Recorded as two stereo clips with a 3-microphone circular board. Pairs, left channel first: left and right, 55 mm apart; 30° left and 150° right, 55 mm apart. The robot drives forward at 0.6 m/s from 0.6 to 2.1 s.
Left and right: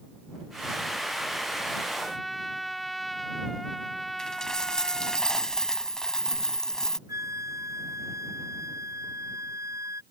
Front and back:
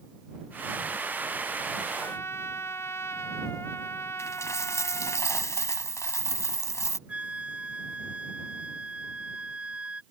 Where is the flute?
85° right.